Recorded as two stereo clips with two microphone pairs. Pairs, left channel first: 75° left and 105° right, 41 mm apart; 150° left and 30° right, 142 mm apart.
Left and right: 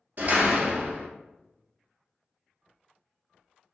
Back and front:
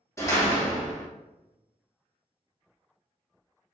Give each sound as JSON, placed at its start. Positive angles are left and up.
{"t": 0.2, "sound": "a door slam", "azimuth_deg": -140, "distance_m": 0.7}